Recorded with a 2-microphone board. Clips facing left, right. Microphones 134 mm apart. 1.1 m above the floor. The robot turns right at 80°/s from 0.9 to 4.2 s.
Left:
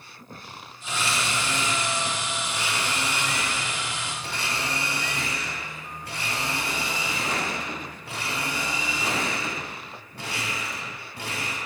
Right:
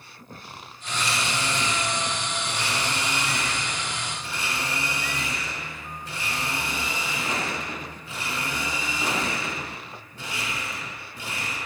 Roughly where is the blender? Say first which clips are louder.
Even; behind.